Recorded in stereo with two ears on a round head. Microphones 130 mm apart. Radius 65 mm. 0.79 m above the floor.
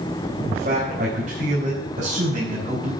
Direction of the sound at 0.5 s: 55° right (ahead or behind).